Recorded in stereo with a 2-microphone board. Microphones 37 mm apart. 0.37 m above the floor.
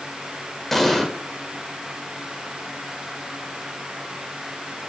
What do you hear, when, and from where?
0.7 s an explosion: 5° left (ahead or behind), 1.6 m